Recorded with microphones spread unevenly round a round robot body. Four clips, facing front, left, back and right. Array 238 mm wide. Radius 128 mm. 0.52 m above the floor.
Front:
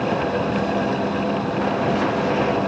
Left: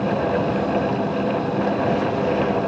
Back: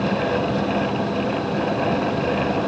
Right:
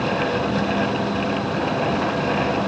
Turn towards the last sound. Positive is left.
No sound to turn to.